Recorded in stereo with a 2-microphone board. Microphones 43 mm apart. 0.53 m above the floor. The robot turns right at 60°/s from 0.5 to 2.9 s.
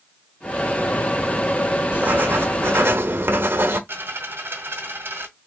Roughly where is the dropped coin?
Right.